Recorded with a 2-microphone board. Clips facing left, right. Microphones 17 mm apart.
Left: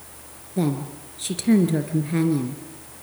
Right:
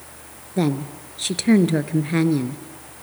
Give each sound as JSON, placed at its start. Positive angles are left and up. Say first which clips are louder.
{"t": 0.6, "sound": "a woman speaking", "louder": "right 2 dB", "side_deg": -30, "distance_m": 1.5}